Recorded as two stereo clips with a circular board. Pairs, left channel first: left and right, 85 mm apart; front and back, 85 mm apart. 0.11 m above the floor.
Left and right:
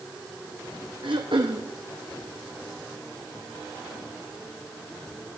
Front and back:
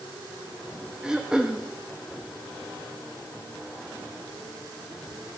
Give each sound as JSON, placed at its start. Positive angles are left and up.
{"t": 1.0, "sound": "throat clearing", "azimuth_deg": -100, "distance_m": 1.9}